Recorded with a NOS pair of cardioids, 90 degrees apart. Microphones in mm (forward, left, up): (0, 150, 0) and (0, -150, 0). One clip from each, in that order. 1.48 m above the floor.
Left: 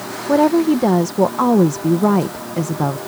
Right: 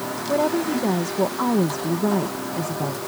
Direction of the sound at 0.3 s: 50° left.